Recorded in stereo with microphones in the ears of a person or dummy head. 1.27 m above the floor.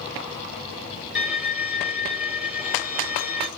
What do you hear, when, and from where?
1.1 s a violin: 10° right (ahead or behind), 3 m